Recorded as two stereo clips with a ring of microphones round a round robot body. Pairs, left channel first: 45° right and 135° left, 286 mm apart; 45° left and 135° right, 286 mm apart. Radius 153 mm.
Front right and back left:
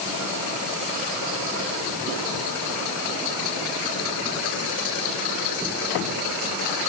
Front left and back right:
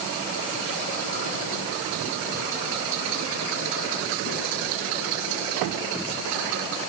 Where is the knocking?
I don't hear knocking.